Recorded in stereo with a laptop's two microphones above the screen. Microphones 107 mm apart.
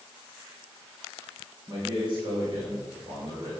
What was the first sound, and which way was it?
A man speaking, 40° right (ahead or behind).